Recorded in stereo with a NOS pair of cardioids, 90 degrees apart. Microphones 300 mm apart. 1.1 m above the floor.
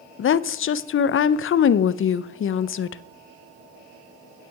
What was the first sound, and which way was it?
A woman speaking, 45° left.